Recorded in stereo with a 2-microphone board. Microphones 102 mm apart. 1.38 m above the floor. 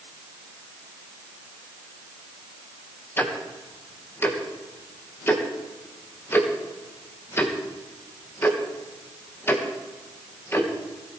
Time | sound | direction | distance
3.2 | ticking | 20° left (ahead or behind) | 1.8 m